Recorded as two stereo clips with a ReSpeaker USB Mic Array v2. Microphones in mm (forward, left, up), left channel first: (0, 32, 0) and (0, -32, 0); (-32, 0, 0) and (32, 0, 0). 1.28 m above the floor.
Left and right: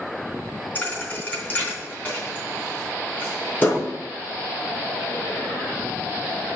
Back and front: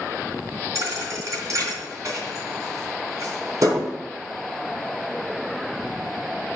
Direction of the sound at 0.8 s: 30° left.